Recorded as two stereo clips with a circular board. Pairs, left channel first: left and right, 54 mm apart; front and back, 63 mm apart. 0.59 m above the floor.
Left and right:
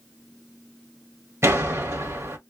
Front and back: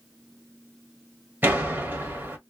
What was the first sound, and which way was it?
A door slam, 120° right.